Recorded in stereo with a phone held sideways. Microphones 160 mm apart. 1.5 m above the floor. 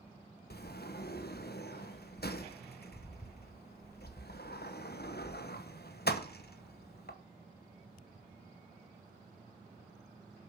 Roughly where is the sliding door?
Left.